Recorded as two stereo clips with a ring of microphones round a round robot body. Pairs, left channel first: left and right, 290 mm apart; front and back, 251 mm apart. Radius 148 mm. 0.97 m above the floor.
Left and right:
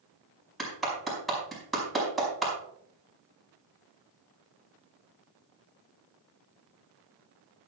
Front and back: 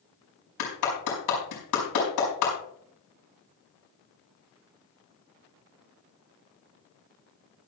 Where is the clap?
Straight ahead, 5.5 m.